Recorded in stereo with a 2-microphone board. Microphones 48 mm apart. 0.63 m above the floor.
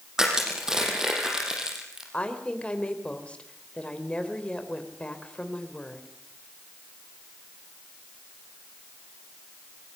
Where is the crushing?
10° right (ahead or behind), 6 m.